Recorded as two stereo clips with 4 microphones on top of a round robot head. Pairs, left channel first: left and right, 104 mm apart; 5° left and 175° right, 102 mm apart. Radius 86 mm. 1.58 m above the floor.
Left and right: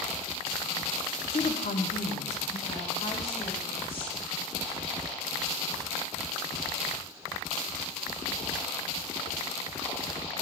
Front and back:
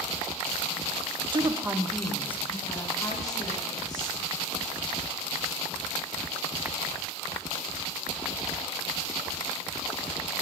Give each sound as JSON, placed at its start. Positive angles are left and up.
{"t": 1.3, "sound": "a woman speaking", "azimuth_deg": 140, "distance_m": 0.8}